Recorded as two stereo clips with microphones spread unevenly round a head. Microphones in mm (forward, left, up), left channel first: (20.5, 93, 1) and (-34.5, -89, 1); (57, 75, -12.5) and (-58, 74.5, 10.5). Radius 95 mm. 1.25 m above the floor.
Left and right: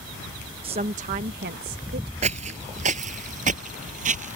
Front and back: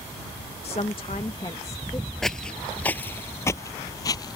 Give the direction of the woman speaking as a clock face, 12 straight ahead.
2 o'clock.